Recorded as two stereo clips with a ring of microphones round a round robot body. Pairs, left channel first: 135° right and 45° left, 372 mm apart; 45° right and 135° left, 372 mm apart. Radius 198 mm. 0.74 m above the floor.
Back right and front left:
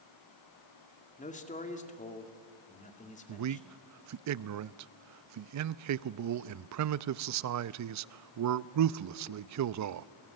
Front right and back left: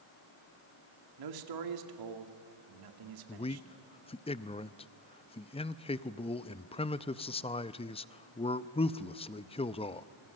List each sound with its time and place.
1.2 s a man speaking: 155° left, 2 m
3.3 s a man speaking: 25° left, 0.5 m